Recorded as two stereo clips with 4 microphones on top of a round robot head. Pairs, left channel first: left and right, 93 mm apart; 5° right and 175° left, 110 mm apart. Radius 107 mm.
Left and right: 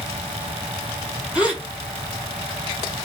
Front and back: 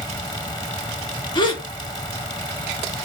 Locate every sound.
1.4 s a gasp: 20° right, 1.6 m